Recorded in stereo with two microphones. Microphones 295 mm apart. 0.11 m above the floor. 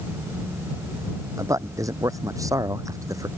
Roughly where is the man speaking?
Centre.